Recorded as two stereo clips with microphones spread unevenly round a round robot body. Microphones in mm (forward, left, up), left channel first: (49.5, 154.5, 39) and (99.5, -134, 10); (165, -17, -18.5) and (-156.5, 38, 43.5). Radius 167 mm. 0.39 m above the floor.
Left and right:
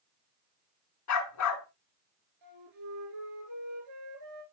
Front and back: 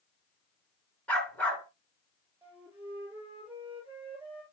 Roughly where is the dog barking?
Left.